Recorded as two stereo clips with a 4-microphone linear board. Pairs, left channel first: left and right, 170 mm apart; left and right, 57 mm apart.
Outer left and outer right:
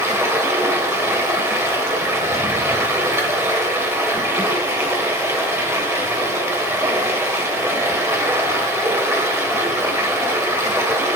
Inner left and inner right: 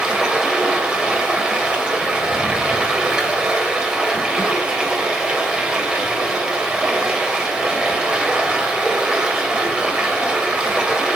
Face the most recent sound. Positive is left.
turn(degrees=-15)  # may be behind; listen again after turning